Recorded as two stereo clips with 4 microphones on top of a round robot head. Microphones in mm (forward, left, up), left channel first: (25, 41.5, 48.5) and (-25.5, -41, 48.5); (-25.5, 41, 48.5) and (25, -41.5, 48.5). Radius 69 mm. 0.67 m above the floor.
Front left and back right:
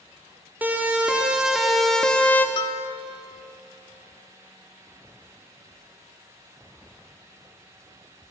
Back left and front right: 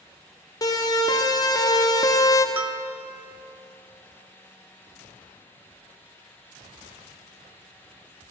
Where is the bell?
15° left, 0.6 m.